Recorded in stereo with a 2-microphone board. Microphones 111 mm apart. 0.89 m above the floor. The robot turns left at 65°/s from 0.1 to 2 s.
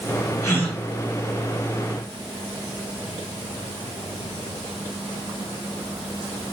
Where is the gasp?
30° left (ahead or behind), 1.9 m; by 0.8 s 5° left (ahead or behind), 1.9 m.